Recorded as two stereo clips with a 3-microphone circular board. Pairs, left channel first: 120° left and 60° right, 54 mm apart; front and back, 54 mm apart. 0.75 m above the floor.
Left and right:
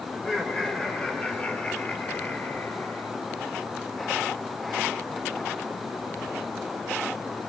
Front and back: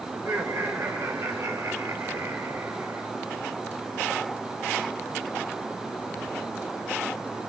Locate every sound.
0.1 s laughter: 160° right, 3.5 m; by 3.1 s 150° left, 2 m